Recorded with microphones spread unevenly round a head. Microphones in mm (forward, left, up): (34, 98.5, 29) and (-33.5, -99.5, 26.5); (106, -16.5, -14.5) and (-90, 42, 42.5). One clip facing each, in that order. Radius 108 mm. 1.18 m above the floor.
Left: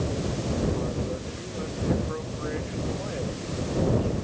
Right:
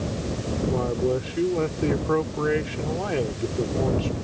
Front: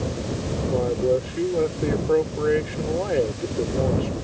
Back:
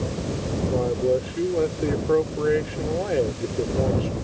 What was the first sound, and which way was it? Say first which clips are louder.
A man speaking: right 6 dB, front 1 dB; 110° right.